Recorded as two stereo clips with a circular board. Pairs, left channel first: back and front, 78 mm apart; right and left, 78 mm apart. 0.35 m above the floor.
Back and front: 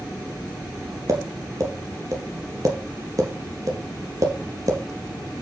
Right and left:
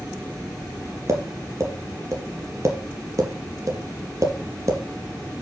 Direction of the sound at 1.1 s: 45° left.